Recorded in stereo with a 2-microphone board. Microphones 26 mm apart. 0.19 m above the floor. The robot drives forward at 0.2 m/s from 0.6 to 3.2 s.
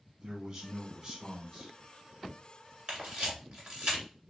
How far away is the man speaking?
About 1.3 m.